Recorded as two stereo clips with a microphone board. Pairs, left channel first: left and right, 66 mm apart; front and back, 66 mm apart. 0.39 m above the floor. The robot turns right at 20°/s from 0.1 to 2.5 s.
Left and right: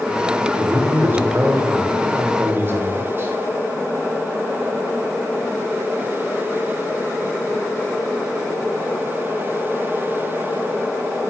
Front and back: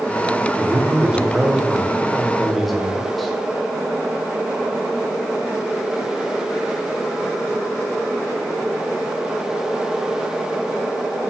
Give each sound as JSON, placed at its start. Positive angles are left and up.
{"t": 0.6, "sound": "a man speaking", "azimuth_deg": -130, "distance_m": 0.9}